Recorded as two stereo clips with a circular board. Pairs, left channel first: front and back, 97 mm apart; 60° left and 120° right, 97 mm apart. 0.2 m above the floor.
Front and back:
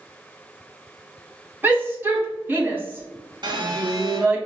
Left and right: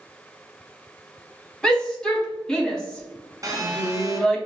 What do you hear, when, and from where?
1.6 s a shout: 135° left, 1.4 m
3.4 s a phone buzzing: 160° right, 0.8 m